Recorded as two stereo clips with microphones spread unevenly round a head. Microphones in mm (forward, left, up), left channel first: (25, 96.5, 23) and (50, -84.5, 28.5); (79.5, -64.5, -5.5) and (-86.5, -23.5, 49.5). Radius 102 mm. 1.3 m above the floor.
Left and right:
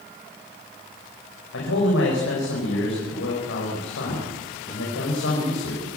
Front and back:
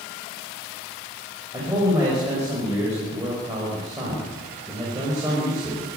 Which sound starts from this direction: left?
A man speaking, at 1.5 s.